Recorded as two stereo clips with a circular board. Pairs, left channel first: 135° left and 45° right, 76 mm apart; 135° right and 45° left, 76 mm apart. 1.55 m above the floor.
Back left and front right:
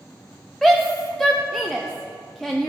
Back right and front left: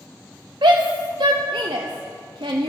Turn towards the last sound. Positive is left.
turn(degrees=45)